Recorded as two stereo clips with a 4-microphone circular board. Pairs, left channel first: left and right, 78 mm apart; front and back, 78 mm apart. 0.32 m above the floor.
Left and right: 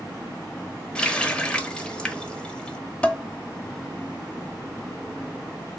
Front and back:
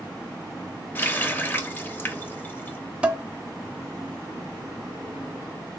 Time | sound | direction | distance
0.9 | a running tap | 30° left | 0.6 m
3.0 | dishes clattering | 135° left | 0.6 m